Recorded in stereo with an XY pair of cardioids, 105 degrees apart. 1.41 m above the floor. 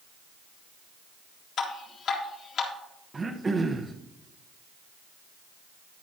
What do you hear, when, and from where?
1.6 s dripping: 60° left, 2.5 m
3.1 s throat clearing: 25° right, 1.1 m